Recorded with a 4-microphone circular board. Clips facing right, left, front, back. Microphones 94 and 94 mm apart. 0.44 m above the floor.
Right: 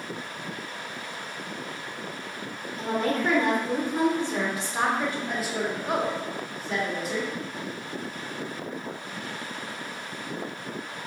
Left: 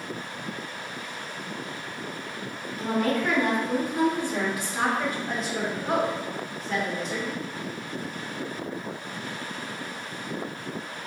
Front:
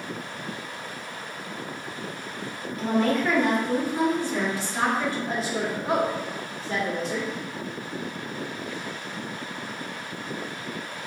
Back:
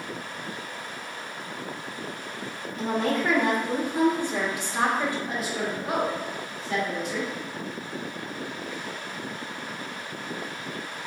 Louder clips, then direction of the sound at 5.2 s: Even, front 2 dB; 10° right.